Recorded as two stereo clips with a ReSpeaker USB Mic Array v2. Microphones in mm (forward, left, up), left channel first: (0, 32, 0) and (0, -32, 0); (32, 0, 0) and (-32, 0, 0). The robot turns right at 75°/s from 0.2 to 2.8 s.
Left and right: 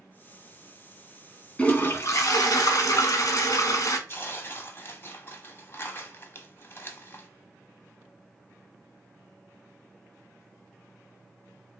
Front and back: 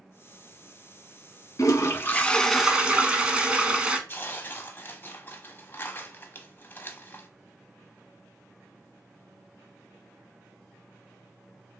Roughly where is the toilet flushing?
Ahead.